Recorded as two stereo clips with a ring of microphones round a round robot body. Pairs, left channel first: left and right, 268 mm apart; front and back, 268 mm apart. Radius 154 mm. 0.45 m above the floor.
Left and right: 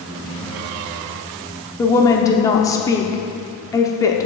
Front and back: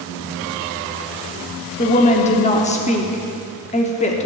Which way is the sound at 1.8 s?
25° left.